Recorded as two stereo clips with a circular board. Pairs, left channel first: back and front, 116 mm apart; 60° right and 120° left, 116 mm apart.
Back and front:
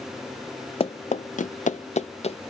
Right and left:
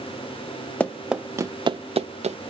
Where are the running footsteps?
140° right, 0.5 m; by 2.4 s 145° left, 0.7 m.